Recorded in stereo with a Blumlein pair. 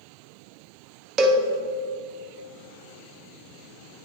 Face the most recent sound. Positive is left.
turn(degrees=-25)